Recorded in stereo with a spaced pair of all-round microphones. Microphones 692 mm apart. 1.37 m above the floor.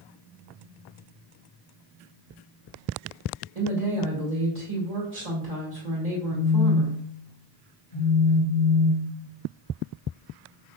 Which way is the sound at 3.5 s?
60° right (ahead or behind).